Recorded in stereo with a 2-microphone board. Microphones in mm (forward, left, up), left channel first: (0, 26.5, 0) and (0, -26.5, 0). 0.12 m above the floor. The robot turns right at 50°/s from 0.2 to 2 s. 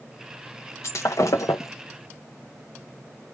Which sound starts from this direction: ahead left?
Breaking glass, at 0.8 s.